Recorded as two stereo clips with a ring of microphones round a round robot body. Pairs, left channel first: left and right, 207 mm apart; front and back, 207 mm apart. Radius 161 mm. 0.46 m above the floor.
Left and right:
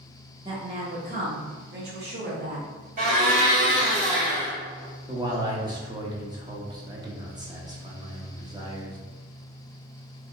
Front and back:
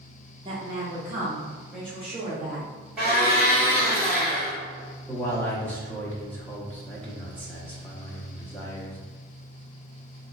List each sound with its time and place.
0.5 s a woman speaking: 140° right, 0.9 m; by 2.6 s 75° right, 1.4 m
3.0 s a blender: 100° right, 1.6 m
5.1 s a man speaking: 65° right, 0.9 m